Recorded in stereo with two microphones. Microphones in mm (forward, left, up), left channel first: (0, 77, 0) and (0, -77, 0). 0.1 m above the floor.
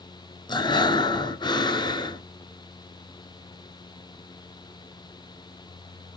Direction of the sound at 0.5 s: 30° left (ahead or behind).